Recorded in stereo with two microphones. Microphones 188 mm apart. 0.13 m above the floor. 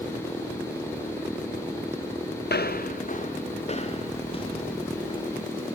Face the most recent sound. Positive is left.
turn(degrees=25)  # may be behind; listen again after turning